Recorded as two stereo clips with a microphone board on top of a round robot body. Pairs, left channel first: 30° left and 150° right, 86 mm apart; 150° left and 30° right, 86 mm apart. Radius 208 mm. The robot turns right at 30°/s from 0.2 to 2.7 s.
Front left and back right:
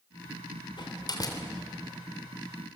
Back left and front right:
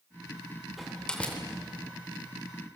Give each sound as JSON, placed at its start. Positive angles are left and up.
{"t": 0.8, "sound": "a door slam", "azimuth_deg": 60, "distance_m": 3.0}